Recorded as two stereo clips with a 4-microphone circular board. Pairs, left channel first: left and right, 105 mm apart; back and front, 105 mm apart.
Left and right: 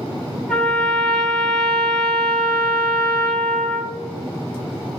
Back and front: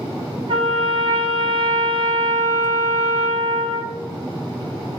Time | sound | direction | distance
0.5 | a trumpet | 5° left | 0.6 m